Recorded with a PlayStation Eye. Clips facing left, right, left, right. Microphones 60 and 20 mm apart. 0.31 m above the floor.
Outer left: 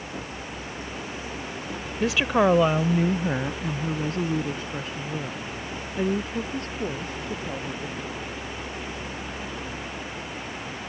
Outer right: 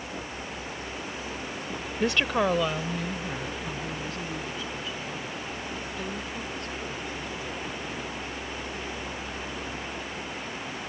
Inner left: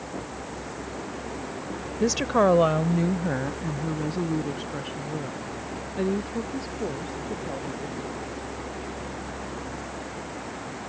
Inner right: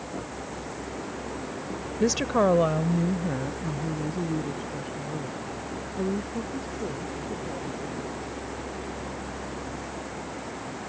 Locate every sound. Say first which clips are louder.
2.0 s a woman speaking: outer left 4 dB, inner left 1 dB; 5° right (ahead or behind); by 8.2 s 40° left (ahead or behind)